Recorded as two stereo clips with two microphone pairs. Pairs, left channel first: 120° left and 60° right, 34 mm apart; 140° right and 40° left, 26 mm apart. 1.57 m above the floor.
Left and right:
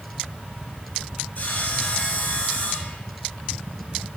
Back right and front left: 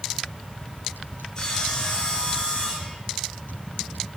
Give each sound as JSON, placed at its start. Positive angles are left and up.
{"t": 1.4, "sound": "sawing", "azimuth_deg": 160, "distance_m": 7.5}